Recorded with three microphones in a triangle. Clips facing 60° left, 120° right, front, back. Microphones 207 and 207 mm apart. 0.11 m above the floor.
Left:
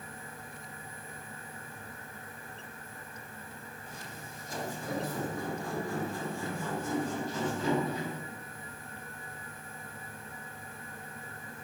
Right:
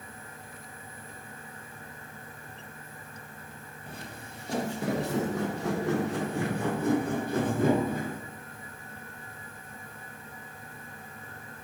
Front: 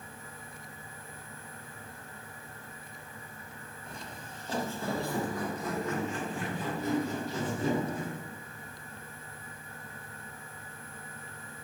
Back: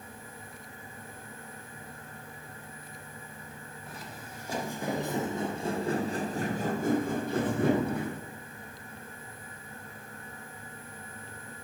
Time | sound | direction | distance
3.9 | footsteps | 95° right | 2 m